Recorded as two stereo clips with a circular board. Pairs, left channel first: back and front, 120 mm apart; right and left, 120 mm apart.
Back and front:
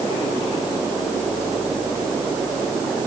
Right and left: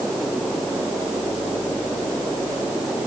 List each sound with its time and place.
Only background noise.